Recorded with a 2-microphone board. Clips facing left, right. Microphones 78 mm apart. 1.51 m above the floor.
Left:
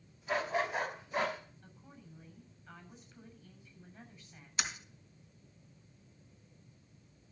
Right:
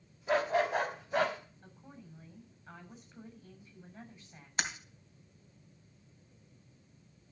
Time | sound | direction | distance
0.3 | a dog barking | 50° right (ahead or behind) | 4 m
1.6 | a woman speaking | 35° right (ahead or behind) | 7.5 m
4.6 | breaking glass | 50° right (ahead or behind) | 2.5 m